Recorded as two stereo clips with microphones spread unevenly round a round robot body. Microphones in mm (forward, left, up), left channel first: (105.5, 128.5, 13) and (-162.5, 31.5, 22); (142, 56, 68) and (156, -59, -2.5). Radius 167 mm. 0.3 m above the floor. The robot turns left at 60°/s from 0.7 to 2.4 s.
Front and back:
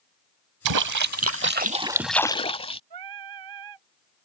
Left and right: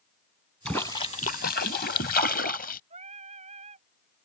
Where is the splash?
165° right; by 2.8 s 90° left.